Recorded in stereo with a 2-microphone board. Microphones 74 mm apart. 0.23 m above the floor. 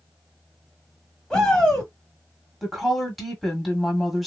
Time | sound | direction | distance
1.3 | a shout | 10° left (ahead or behind) | 1.4 m
2.6 | a woman speaking | centre (ahead or behind) | 1.3 m